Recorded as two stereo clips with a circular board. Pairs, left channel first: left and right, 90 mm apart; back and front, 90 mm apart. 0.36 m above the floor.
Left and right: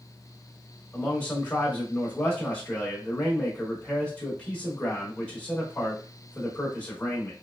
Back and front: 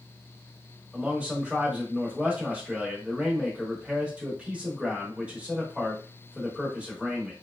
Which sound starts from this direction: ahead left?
A man speaking, at 0.9 s.